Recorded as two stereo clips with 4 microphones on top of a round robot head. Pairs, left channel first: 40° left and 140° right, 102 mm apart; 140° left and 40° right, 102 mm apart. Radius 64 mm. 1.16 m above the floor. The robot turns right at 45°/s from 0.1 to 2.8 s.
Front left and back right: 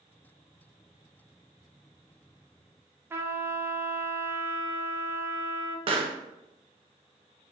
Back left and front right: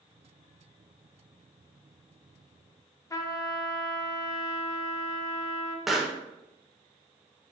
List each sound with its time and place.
3.1 s a trumpet: 170° left, 0.5 m
5.9 s a pop: 130° right, 0.5 m